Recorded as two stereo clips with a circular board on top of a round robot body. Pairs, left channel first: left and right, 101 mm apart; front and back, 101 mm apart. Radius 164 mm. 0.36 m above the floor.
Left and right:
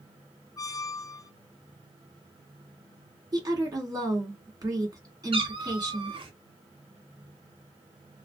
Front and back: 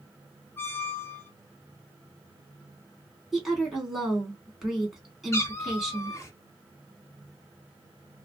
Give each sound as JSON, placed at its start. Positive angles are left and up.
{"t": 0.6, "sound": "a squeak", "azimuth_deg": 55, "distance_m": 0.6}
{"t": 3.3, "sound": "a woman speaking", "azimuth_deg": -90, "distance_m": 1.6}
{"t": 5.3, "sound": "a cat meowing", "azimuth_deg": -60, "distance_m": 0.8}